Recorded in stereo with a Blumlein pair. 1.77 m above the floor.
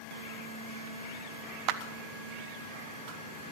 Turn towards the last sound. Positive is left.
turn(degrees=-40)